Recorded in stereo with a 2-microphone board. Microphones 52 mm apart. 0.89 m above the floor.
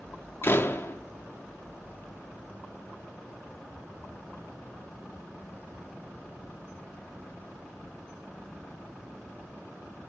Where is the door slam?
45° left (ahead or behind), 1.1 m.